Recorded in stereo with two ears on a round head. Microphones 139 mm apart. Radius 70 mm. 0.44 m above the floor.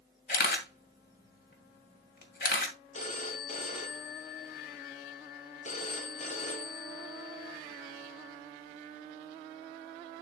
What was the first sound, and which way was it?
A camera shutter, 60° left (ahead or behind).